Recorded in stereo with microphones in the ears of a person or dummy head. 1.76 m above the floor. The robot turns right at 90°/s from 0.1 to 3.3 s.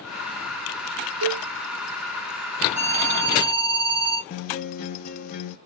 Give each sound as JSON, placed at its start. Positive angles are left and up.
{"t": 1.2, "sound": "a cowbell", "side_deg": -85, "distance_m": 0.6}
{"t": 2.8, "sound": "an alarm", "azimuth_deg": -105, "distance_m": 1.4}
{"t": 4.3, "sound": "a guitar", "side_deg": 45, "distance_m": 0.7}